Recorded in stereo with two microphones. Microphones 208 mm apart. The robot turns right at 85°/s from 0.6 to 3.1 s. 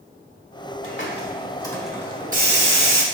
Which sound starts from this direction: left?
A hiss, at 0.8 s.